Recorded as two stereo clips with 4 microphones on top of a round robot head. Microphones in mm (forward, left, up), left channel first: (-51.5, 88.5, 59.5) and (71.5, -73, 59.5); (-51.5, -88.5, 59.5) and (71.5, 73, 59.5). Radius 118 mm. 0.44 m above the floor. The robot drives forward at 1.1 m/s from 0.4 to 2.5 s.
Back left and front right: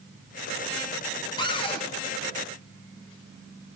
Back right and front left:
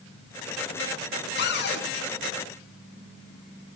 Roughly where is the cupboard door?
Behind.